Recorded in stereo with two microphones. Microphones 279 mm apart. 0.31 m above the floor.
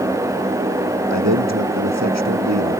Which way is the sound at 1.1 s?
70° right (ahead or behind).